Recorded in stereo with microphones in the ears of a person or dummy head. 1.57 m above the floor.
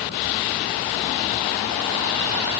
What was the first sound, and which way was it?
Only background noise.